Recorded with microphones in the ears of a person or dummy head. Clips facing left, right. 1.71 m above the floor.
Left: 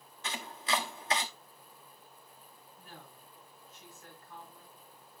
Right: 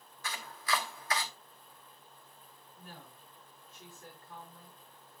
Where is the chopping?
25° left (ahead or behind), 1.0 m.